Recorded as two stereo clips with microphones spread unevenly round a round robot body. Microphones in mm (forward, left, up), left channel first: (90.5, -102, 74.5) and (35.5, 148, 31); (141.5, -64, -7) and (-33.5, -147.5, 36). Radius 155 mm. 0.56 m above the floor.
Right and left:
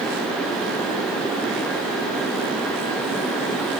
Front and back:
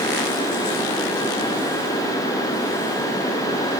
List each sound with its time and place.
Only background noise.